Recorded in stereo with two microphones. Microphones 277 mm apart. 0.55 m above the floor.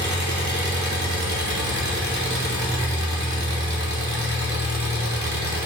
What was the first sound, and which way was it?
An engine running, 70° right (ahead or behind).